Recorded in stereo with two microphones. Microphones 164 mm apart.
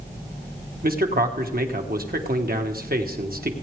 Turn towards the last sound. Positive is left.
turn(degrees=-65)  # may be behind; listen again after turning